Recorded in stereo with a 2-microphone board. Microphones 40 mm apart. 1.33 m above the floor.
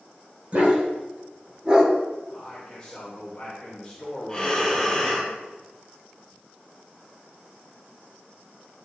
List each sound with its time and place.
0.5 s a dog barking: 35° right (ahead or behind), 2.5 m; by 1.9 s 15° right (ahead or behind), 1.9 m
2.3 s a man speaking: 20° left (ahead or behind), 2.5 m
4.3 s breathing: 15° left (ahead or behind), 4.5 m